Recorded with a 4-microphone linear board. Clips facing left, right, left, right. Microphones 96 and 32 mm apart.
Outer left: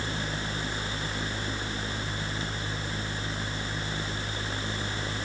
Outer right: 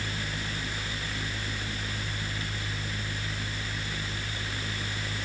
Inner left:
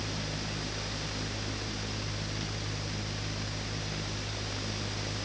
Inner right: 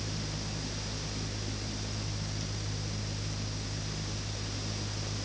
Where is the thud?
I don't hear a thud.